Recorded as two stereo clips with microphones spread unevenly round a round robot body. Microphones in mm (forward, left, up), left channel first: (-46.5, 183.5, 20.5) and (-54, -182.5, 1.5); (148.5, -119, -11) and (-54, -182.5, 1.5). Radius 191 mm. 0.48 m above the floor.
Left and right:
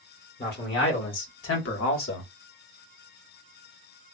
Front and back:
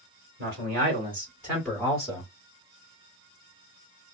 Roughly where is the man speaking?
Behind left.